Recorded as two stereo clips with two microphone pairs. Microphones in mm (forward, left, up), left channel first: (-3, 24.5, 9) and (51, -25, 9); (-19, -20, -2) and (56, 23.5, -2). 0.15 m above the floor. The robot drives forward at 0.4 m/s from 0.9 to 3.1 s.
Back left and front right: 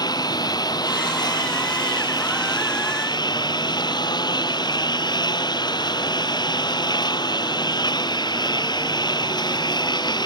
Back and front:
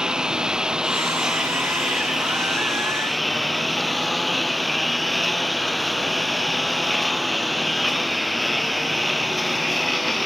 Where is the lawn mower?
110° left; by 10.2 s 120° left.